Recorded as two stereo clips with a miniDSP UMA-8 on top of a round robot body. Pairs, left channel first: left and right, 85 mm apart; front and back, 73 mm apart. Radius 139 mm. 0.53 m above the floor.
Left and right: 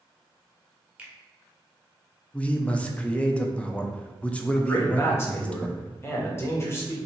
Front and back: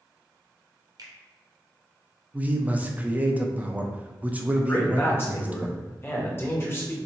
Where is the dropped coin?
I don't hear a dropped coin.